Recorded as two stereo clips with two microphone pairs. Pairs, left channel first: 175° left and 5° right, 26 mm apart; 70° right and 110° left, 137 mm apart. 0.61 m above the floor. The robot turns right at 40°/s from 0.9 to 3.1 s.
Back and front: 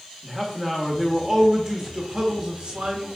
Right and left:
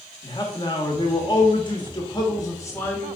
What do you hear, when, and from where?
0.2 s a man speaking: 90° right, 1.3 m; by 3.1 s 5° right, 1.3 m